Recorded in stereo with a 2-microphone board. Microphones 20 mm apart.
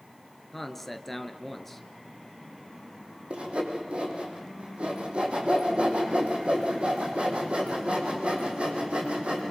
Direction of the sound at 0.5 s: 10° left (ahead or behind).